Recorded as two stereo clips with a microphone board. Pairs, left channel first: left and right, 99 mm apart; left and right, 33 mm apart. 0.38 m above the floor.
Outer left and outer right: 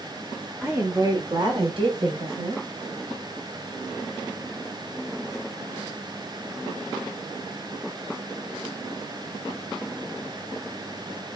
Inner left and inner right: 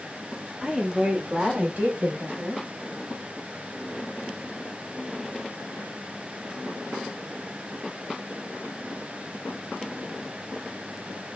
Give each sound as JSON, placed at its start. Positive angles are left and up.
{"t": 0.6, "sound": "a woman speaking", "side_deg": -10, "distance_m": 0.9}